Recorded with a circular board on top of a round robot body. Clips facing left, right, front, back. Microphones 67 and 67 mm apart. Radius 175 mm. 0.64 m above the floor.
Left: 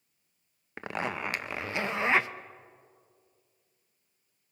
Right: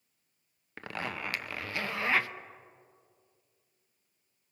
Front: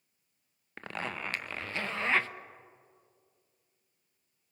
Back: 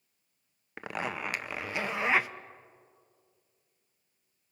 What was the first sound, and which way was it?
A zipper, 120° left.